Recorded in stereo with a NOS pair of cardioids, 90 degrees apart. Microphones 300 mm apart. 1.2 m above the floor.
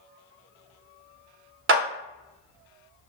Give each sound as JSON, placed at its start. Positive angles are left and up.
{"t": 1.7, "sound": "a clap", "azimuth_deg": -45, "distance_m": 0.6}